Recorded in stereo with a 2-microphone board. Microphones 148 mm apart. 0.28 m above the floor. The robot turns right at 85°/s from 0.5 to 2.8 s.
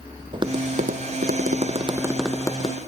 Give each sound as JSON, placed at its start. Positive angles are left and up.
{"t": 0.3, "sound": "tapping", "side_deg": -30, "distance_m": 1.0}